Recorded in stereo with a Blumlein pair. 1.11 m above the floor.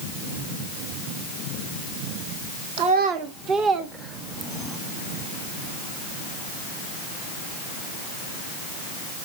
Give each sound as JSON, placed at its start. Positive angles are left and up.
{"t": 2.8, "sound": "a child speaking", "azimuth_deg": -45, "distance_m": 1.6}